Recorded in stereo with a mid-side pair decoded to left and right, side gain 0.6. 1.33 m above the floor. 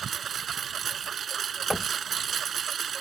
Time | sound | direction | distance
0.0 | a lawn mower | 40° right | ?
1.7 | knocking | 5° left | ?